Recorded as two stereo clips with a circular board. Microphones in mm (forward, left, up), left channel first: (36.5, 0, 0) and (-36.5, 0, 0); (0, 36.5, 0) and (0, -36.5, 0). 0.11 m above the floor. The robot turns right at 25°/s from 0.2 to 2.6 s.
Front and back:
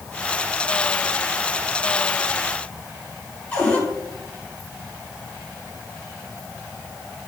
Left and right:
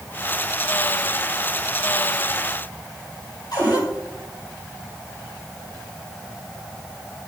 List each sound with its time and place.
3.5 s a cupboard door: 70° left, 4.5 m